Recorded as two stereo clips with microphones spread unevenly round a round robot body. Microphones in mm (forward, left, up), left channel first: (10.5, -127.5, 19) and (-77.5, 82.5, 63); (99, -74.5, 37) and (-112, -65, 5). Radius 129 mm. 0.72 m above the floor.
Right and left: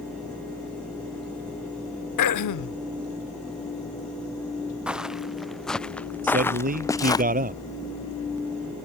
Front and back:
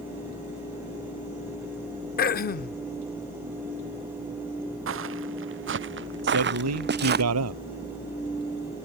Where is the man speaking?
165° left.